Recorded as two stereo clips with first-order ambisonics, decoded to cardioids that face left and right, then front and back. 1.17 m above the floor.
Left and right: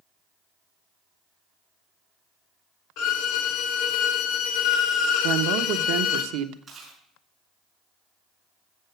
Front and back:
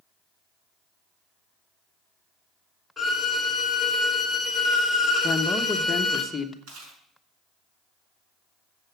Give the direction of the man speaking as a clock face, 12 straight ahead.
3 o'clock.